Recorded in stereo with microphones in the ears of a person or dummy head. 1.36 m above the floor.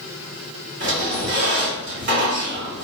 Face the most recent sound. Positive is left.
turn(degrees=-45)  # may be behind; listen again after turning